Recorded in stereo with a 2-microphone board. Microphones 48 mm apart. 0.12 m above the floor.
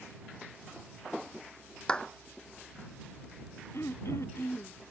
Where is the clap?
20° left (ahead or behind).